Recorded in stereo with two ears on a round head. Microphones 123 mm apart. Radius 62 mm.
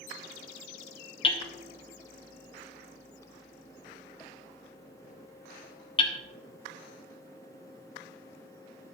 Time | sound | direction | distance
1.2 | hammering | 40° left (ahead or behind) | 1.1 m